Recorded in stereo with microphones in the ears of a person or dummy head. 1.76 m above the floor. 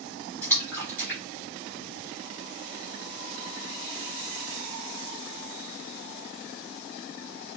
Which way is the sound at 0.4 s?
10° left (ahead or behind).